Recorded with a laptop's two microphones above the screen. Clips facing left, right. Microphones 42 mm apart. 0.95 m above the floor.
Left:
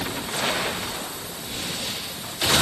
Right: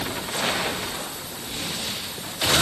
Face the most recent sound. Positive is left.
No sound to turn to.